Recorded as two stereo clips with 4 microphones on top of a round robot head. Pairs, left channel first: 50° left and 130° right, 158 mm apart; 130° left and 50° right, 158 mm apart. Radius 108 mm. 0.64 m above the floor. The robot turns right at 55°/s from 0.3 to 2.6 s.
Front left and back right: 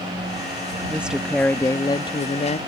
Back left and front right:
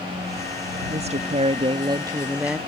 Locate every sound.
0.9 s a woman speaking: 55° right; by 2.6 s 35° left